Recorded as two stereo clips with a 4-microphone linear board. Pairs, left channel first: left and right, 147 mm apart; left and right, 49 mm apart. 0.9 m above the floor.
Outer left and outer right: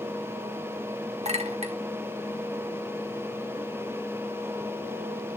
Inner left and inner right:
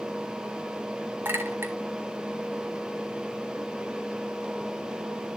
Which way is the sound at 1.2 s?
45° right (ahead or behind).